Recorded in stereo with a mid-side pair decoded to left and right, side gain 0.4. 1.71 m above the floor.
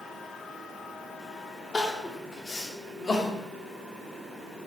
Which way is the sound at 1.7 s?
35° left.